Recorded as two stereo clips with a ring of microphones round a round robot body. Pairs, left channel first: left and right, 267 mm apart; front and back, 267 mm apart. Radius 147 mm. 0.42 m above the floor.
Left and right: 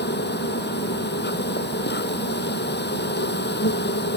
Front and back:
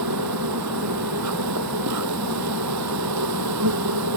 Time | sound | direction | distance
0.0 | an insect | 140° left | ?